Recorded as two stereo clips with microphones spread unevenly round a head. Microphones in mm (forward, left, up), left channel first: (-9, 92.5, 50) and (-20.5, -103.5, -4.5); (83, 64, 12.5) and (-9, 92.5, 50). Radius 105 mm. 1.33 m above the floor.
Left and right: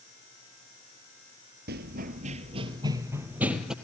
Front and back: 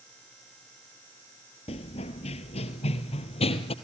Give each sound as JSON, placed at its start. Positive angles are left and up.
{"t": 1.7, "sound": "running footsteps", "azimuth_deg": -55, "distance_m": 1.6}